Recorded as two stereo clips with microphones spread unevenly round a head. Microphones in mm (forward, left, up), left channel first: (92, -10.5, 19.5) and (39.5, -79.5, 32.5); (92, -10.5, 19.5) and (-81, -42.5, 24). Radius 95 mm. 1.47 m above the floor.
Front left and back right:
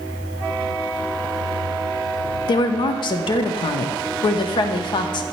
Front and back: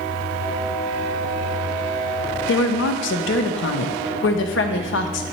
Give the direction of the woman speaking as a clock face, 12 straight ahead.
11 o'clock.